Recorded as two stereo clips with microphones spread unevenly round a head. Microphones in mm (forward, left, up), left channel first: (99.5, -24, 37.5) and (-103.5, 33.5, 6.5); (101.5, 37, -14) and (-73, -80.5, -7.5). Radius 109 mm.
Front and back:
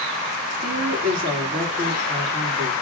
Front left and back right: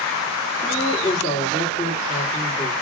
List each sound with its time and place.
0.6 s a woman speaking: 120° left, 2 m